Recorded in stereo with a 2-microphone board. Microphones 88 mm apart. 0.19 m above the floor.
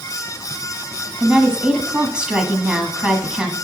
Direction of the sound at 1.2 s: 10° right (ahead or behind).